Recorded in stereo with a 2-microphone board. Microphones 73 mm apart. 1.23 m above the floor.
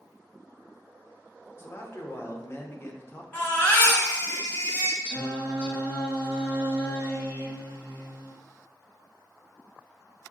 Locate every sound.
1.6 s a man speaking: 35° left (ahead or behind), 0.8 m
3.3 s a baby crying: 25° left (ahead or behind), 1.1 m
5.0 s singing: 20° left (ahead or behind), 1.4 m